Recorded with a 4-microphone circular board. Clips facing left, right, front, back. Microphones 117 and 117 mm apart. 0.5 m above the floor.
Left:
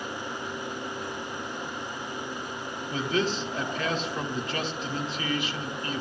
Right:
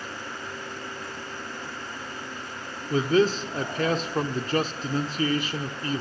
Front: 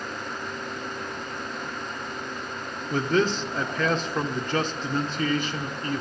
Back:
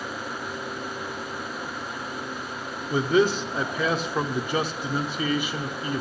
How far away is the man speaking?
About 1.1 m.